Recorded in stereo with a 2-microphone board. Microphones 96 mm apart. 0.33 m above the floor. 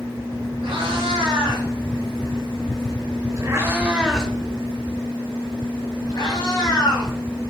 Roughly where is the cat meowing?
Right.